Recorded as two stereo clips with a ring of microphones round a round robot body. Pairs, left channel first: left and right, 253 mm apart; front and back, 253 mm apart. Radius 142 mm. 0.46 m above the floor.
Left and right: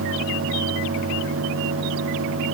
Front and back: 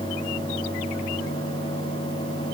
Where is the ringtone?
No ringtone in this recording.